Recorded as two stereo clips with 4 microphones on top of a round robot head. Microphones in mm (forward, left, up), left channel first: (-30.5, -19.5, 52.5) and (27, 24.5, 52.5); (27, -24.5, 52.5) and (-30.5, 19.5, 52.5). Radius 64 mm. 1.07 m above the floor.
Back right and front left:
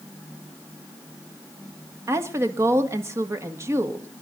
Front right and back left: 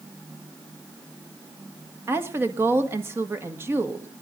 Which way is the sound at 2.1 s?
85° left.